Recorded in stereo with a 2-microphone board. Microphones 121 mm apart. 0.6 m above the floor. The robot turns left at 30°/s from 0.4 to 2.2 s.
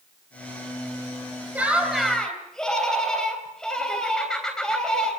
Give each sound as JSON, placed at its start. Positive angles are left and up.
{"t": 1.6, "sound": "laughter", "side_deg": -15, "distance_m": 3.5}